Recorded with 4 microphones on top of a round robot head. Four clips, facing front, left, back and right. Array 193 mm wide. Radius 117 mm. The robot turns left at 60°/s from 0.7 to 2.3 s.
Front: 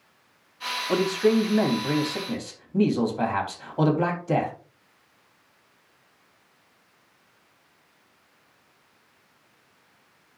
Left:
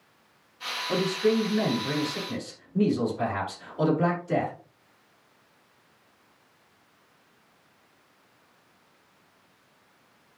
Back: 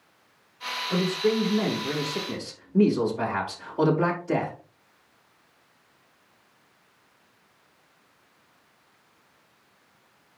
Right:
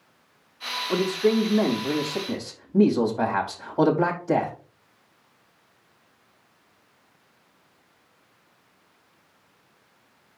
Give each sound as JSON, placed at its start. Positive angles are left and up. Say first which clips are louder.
{"t": 0.9, "sound": "a man speaking", "louder": "right 2 dB, front 3 dB", "azimuth_deg": 20, "distance_m": 3.0}